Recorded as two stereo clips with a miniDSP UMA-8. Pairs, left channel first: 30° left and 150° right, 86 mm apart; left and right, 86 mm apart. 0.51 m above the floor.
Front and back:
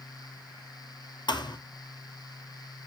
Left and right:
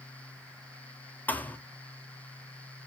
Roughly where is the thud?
Ahead left.